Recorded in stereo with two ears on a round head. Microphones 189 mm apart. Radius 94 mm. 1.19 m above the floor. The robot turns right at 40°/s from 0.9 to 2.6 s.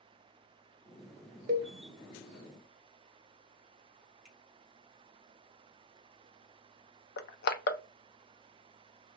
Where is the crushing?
50° left (ahead or behind), 0.5 m.